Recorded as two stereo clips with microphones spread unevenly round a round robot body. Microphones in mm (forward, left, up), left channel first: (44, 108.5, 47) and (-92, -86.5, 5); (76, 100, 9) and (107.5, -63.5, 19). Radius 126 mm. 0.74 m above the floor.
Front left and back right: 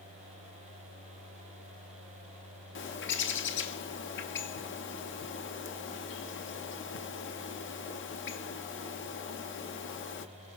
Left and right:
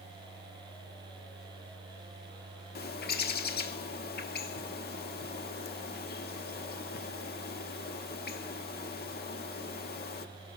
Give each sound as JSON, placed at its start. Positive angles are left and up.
{"t": 2.8, "sound": "a bird", "azimuth_deg": 100, "distance_m": 1.1}